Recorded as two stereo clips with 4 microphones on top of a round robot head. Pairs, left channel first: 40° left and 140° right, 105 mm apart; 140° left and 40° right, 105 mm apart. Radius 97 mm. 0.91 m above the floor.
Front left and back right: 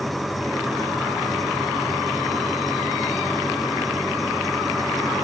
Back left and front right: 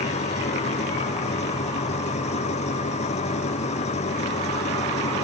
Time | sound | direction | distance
0.0 | an engine running | 130° left | ?